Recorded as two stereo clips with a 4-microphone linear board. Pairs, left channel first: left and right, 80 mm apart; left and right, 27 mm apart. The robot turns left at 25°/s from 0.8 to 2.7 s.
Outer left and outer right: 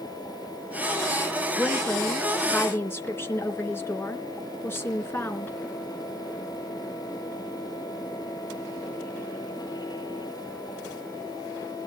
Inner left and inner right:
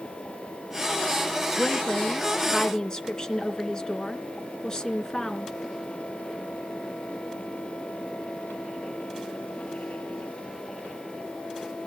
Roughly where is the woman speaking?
Centre.